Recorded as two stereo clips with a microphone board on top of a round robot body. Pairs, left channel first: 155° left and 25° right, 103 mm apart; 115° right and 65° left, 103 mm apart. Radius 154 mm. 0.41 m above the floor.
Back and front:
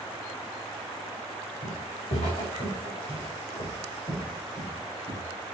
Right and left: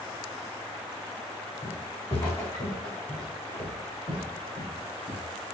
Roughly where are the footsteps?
Behind.